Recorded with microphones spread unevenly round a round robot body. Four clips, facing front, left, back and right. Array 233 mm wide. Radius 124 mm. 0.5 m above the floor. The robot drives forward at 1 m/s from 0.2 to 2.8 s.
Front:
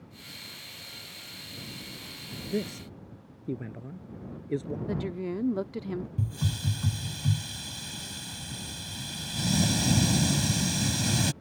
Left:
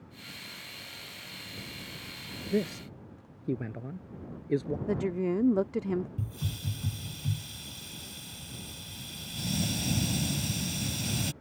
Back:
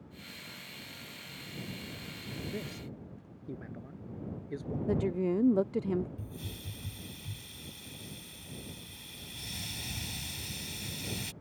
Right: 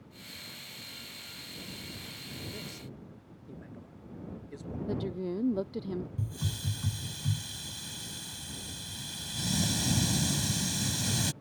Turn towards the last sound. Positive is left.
turn(degrees=0)